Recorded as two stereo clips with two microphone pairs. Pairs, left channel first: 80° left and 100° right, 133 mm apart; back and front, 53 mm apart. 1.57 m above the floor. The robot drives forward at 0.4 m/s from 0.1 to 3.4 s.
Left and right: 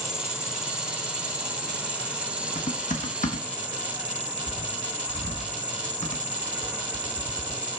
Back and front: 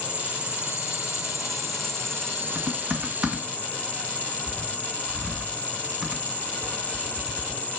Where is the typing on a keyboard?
65° left, 1.7 m; by 7.6 s 80° left, 1.6 m.